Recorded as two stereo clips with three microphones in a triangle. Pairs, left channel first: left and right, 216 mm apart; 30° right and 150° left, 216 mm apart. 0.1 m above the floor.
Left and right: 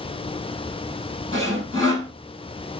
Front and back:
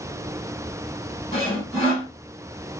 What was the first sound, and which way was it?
Sawing, 90° right.